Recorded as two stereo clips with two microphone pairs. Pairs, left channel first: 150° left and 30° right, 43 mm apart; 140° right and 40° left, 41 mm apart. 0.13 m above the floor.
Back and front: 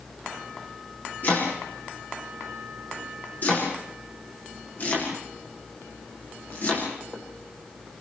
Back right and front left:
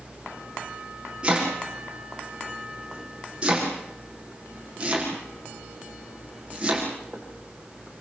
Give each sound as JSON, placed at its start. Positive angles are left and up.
{"t": 1.2, "sound": "chopping", "azimuth_deg": 105, "distance_m": 7.0}